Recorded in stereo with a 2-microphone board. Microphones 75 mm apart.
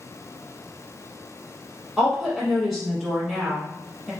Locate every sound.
2.0 s a woman speaking: centre (ahead or behind), 1.2 m